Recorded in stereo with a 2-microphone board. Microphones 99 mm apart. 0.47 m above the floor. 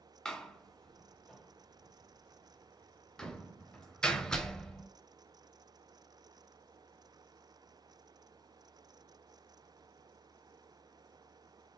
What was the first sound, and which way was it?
A door slam, 10° left (ahead or behind).